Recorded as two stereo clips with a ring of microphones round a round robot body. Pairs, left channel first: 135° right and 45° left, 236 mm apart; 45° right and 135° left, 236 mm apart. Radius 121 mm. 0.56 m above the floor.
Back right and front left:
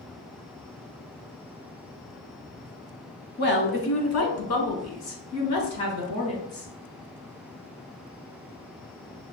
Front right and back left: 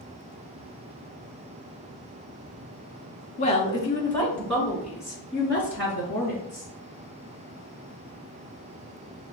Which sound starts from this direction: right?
A woman speaking, at 3.4 s.